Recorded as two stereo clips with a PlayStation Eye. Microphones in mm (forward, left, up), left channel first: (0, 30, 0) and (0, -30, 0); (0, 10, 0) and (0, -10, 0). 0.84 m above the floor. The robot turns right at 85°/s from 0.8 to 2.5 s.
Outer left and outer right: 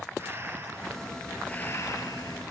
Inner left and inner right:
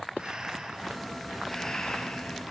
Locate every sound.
0.2 s breathing: 40° right, 4.5 m; by 2.4 s 100° left, 4.5 m